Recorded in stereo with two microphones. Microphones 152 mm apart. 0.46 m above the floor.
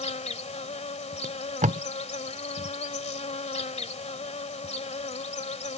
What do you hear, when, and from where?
0.0 s an insect: 45° left (ahead or behind)
1.2 s tape being pulled: 55° right (ahead or behind)